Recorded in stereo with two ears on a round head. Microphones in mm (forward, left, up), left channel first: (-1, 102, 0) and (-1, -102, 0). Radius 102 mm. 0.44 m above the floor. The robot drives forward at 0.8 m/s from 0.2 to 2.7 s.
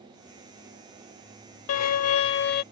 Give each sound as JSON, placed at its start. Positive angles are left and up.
{"t": 1.7, "sound": "a violin", "side_deg": 70}